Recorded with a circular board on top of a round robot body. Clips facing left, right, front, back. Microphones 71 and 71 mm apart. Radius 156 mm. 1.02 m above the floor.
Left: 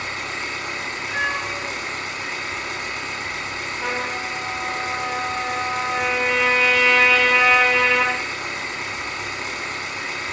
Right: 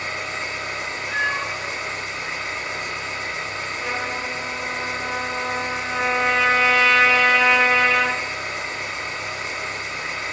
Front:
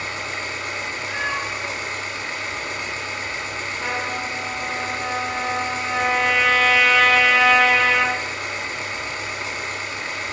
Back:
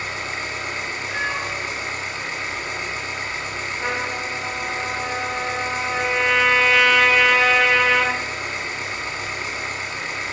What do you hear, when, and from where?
0.0 s an engine running: 115° left, 1.1 m
1.1 s a cat meowing: 5° right, 0.6 m
3.8 s a trumpet: 110° left, 0.7 m